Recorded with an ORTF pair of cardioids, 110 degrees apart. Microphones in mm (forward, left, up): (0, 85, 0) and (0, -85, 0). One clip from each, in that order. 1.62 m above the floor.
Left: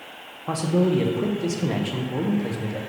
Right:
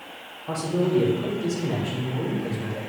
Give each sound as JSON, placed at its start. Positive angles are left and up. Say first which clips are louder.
{"t": 0.5, "sound": "a man speaking", "louder": "left 2 dB", "azimuth_deg": 30, "distance_m": 0.8}